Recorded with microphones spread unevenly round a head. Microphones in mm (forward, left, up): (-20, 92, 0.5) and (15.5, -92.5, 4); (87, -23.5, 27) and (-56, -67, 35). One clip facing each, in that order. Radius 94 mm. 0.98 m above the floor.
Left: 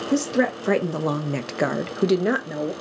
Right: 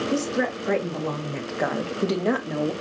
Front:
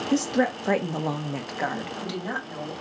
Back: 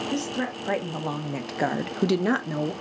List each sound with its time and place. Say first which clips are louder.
0.1 s a woman speaking: left 7 dB, front 9 dB; 55° left, 1.3 m; by 2.7 s 170° right, 1.3 m